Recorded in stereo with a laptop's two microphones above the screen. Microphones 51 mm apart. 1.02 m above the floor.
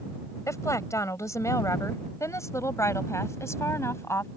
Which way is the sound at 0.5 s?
85° left.